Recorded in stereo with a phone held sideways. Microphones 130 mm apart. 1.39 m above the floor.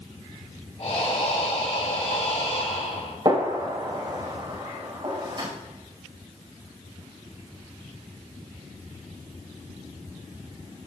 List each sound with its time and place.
0.8 s breathing: 50° left (ahead or behind), 3 m
3.2 s a gunshot: 35° right (ahead or behind), 4.5 m